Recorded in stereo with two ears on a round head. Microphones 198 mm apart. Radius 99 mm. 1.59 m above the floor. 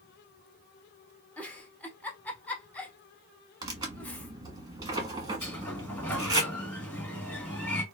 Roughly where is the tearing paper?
Centre.